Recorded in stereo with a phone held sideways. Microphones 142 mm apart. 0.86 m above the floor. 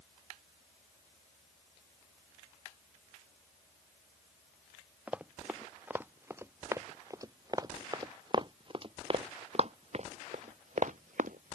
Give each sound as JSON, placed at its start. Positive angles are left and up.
{"t": 5.1, "sound": "running footsteps", "side_deg": -10}